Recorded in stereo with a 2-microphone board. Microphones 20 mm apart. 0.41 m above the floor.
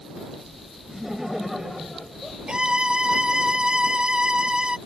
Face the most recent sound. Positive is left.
turn(degrees=-55)  # may be behind; listen again after turning